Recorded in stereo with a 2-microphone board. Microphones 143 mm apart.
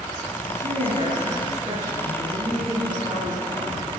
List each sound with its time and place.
0.5 s a woman speaking: 55° right (ahead or behind), 10 m; by 3.9 s 45° right (ahead or behind), 13 m